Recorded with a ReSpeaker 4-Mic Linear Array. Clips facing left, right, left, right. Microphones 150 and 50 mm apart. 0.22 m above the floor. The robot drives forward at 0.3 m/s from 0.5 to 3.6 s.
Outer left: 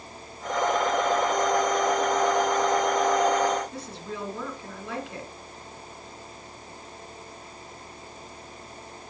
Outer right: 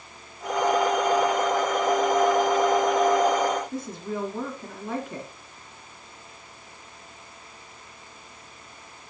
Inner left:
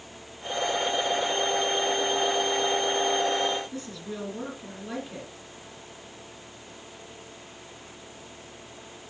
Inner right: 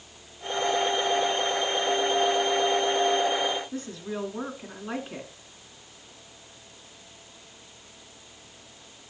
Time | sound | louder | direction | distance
3.7 | a woman speaking | outer right 5 dB, inner right 2 dB | 50° right (ahead or behind) | 2.5 m